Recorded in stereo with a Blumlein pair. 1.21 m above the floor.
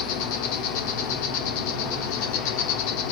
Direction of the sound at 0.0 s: 45° left.